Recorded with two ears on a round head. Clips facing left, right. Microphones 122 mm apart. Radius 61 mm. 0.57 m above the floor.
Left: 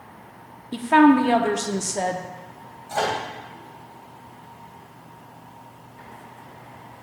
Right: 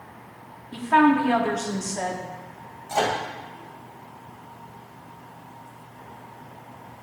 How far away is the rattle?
I don't hear a rattle.